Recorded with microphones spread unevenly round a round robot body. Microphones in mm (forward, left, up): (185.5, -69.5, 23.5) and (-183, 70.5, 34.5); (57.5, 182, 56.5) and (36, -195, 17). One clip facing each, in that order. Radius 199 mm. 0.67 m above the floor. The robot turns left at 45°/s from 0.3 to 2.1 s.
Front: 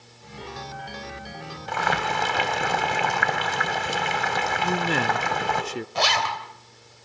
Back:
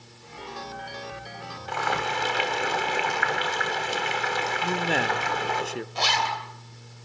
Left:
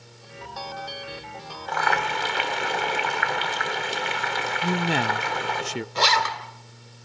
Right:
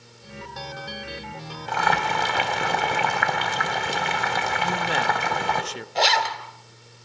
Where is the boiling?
40° right, 3 m; by 5.6 s 60° right, 3 m.